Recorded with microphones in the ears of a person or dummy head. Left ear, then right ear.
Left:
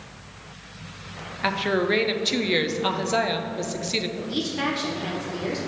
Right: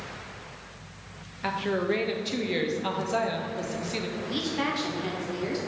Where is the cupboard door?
No cupboard door in this recording.